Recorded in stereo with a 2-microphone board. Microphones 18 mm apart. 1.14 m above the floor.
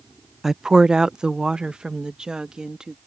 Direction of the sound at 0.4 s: 25° right (ahead or behind).